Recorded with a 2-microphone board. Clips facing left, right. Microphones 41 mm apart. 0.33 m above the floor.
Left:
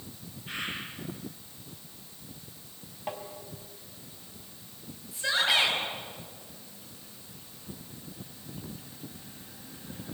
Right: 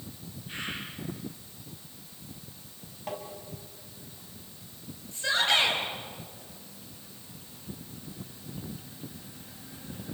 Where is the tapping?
10° left (ahead or behind), 2.5 m.